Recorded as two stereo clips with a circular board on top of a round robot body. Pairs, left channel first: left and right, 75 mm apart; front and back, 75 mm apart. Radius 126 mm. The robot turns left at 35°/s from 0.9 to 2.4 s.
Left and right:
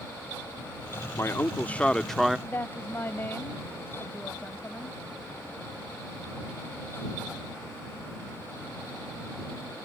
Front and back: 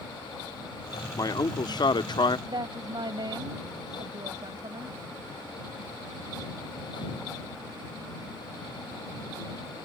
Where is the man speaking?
35° left; by 2.4 s 5° right.